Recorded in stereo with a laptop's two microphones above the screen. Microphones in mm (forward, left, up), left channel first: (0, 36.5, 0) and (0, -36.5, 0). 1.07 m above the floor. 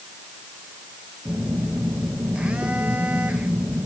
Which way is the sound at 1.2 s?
15° right (ahead or behind).